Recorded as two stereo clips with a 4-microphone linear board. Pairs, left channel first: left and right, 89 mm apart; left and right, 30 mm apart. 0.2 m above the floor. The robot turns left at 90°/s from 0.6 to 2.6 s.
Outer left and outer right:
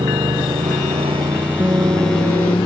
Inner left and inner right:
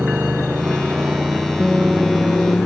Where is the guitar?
25° right; by 2.6 s 115° right.